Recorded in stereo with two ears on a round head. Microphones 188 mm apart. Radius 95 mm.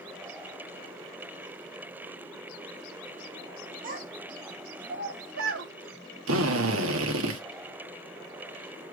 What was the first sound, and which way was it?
A child speaking, 40° right (ahead or behind).